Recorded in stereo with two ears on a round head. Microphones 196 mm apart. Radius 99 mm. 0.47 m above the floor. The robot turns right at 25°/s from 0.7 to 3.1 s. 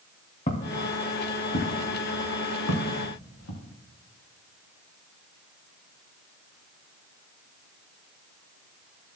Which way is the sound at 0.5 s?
30° left (ahead or behind).